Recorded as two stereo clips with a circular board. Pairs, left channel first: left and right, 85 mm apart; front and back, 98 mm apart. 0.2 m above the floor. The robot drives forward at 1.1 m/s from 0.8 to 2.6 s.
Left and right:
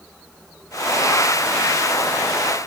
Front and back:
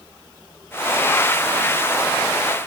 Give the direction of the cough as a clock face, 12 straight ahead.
No cough in this recording.